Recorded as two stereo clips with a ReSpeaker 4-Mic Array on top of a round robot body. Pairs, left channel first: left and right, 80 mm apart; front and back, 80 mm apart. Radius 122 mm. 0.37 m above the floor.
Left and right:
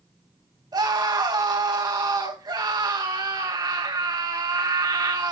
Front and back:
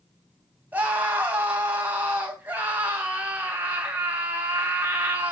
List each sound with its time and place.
0.7 s a scream: 110° right, 4 m